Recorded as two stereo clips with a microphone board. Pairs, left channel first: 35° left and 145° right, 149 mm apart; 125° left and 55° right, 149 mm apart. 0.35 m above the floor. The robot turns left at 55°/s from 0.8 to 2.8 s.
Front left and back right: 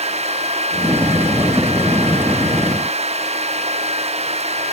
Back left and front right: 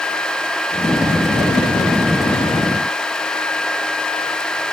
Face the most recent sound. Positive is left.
No sound to turn to.